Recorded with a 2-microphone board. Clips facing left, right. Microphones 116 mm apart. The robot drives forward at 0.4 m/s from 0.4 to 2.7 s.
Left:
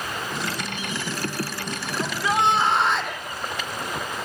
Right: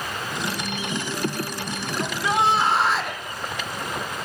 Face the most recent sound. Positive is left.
turn(degrees=0)  # may be behind; listen again after turning